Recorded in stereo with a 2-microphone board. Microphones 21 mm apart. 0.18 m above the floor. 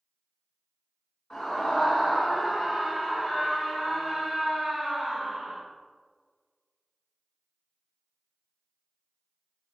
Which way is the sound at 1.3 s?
40° left (ahead or behind).